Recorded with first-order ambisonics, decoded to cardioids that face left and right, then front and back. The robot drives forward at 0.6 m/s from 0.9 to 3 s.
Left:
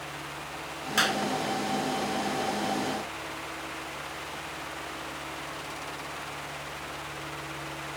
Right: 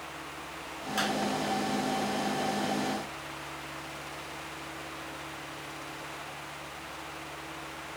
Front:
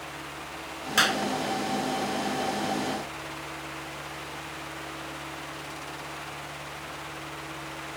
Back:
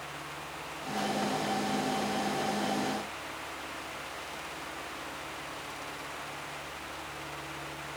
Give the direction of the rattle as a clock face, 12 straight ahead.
I don't hear a rattle.